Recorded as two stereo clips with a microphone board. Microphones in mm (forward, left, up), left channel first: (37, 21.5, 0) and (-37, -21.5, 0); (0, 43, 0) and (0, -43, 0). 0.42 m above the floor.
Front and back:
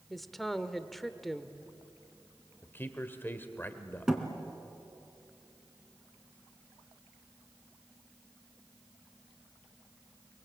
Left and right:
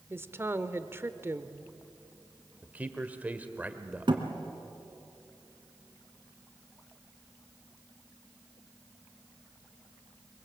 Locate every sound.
0.1 s a woman speaking: 55° right, 1.0 m
2.6 s a man speaking: 25° right, 1.5 m
4.1 s a thud: 65° right, 2.5 m